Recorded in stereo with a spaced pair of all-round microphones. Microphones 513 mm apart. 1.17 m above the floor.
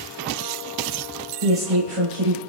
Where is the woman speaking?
80° right, 4 m.